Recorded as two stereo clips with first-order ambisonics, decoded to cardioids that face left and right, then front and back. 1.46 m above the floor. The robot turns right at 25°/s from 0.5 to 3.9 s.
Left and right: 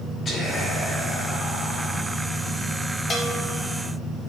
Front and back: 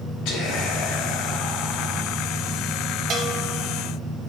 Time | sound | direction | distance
0.2 | whispering | 30° left | 3 m
3.1 | a bell | 155° left | 0.7 m